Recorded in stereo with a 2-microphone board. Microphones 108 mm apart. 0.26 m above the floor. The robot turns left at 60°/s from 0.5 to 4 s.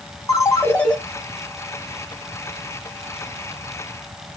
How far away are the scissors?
I don't hear scissors.